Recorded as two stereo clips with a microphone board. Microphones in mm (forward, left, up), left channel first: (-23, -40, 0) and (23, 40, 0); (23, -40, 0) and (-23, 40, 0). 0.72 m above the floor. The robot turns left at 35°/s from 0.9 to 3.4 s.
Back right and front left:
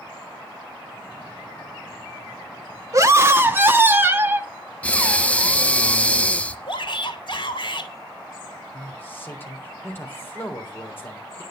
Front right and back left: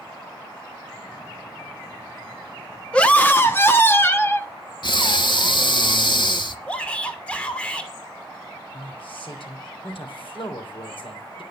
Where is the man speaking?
55° right, 3 m.